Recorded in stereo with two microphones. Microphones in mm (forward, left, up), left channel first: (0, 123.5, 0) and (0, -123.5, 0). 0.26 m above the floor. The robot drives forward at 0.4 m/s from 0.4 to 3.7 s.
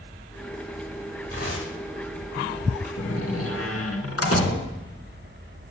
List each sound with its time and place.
1.3 s tearing paper: 65° left (ahead or behind), 9.5 m; by 2.9 s 70° left (ahead or behind), 9 m
3.0 s a door slam: 65° left (ahead or behind), 2.5 m